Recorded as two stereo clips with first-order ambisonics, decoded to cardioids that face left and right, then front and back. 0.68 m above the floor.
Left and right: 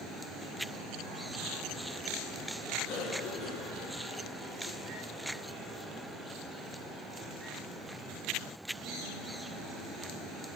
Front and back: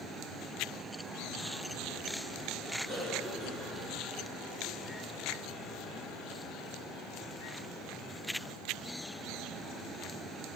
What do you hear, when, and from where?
2.9 s a cough: 110° left, 6.5 m